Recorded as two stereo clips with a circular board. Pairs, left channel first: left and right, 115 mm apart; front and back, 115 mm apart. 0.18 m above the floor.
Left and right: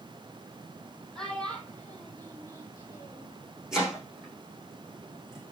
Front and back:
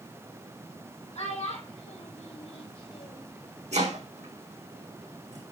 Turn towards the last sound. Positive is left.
turn(degrees=-175)